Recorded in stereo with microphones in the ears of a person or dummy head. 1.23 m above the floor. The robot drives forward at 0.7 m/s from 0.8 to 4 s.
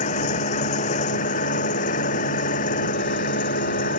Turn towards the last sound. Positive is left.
turn(degrees=50)  # may be behind; listen again after turning